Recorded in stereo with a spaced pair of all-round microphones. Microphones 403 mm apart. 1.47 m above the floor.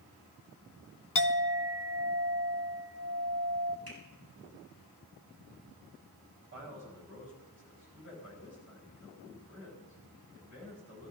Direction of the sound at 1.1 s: 50° left (ahead or behind).